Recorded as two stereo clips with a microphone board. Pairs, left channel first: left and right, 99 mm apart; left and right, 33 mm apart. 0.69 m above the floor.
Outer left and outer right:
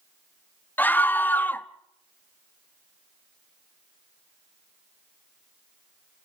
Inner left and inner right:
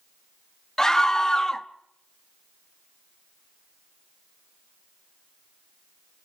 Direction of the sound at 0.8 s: 20° left (ahead or behind).